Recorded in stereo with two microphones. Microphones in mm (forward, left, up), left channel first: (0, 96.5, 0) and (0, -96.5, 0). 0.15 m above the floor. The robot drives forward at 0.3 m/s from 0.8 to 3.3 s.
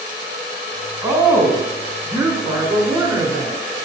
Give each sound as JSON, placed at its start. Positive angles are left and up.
{"t": 1.0, "sound": "a woman speaking", "side_deg": -15, "distance_m": 1.2}